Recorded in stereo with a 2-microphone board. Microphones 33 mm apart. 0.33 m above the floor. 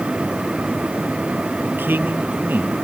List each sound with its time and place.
1.6 s a man speaking: 80° right